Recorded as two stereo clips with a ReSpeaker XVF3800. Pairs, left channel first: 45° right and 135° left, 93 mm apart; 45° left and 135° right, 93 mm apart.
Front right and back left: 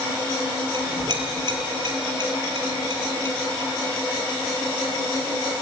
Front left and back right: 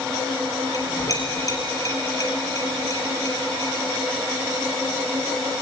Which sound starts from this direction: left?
A clink, at 0.7 s.